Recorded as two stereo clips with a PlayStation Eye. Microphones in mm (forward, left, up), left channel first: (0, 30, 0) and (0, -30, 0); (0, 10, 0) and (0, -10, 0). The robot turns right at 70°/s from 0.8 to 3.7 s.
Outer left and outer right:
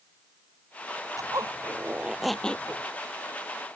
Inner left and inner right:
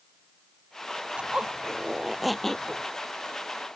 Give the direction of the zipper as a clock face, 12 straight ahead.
3 o'clock.